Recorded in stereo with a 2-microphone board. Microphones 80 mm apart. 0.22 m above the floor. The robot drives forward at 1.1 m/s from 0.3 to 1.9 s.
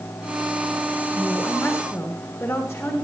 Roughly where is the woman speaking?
Centre.